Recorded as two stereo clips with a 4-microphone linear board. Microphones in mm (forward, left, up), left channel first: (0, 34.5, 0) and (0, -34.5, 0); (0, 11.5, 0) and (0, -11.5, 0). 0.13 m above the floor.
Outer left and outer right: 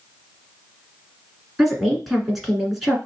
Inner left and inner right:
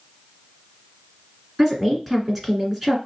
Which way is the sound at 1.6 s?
Centre (ahead or behind).